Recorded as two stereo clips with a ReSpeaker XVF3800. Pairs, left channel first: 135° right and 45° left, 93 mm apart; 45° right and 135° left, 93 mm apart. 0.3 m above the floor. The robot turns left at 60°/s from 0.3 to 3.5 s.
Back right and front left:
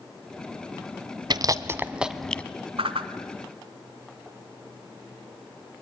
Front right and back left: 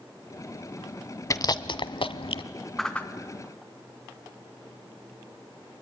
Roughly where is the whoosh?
Ahead left.